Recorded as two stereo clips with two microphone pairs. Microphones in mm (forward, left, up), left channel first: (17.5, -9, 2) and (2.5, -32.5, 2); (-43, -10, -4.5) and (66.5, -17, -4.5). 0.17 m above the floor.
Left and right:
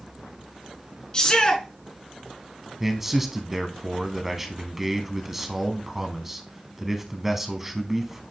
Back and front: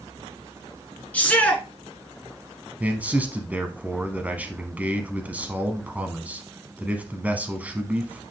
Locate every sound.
1.1 s a shout: 105° left, 1.8 m
2.8 s a man speaking: 55° right, 1.1 m